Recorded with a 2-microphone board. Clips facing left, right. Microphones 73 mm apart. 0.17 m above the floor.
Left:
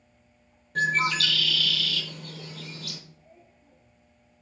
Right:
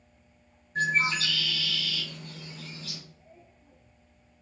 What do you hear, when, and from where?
0.8 s a bird: 85° left, 0.7 m